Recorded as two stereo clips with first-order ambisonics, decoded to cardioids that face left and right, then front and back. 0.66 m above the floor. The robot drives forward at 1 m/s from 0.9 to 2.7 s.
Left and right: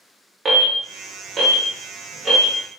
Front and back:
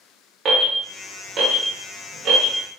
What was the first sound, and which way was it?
An alarm, 140° right.